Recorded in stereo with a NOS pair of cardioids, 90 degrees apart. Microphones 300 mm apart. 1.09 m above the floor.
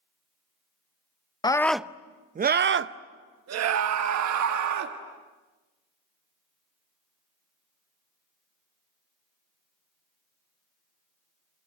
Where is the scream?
15° left, 0.7 m; by 5.0 s 70° right, 1.8 m.